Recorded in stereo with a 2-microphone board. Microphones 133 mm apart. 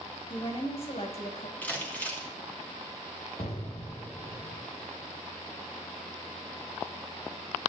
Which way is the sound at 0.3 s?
45° left (ahead or behind).